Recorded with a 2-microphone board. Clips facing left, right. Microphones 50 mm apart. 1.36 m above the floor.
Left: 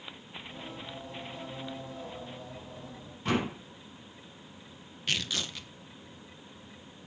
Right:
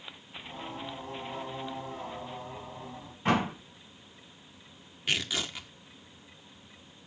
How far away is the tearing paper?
About 1.4 m.